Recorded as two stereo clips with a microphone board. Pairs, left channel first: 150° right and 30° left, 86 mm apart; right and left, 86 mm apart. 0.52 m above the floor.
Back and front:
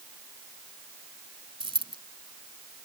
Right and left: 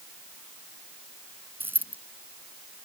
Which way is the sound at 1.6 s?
25° left.